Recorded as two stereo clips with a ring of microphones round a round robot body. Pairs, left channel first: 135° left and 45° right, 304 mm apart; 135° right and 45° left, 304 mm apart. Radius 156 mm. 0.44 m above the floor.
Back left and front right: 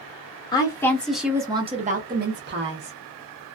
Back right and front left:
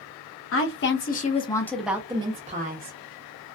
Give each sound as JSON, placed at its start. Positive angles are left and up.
{"t": 0.5, "sound": "a woman speaking", "azimuth_deg": -155, "distance_m": 0.9}